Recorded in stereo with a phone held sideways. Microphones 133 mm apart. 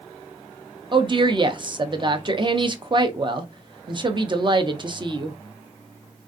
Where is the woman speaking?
35° right (ahead or behind), 0.6 m.